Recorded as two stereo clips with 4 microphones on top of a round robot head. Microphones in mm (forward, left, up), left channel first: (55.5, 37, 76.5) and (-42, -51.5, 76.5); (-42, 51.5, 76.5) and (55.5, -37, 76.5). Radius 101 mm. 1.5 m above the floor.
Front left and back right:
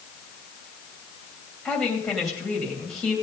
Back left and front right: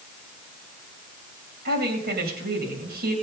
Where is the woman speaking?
45° right, 2.5 m.